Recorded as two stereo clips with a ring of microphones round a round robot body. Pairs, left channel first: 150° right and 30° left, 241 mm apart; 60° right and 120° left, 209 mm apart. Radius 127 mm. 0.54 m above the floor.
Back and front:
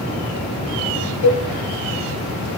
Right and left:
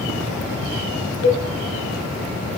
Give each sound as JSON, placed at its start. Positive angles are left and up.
{"t": 1.2, "sound": "a cowbell", "azimuth_deg": -130, "distance_m": 0.8}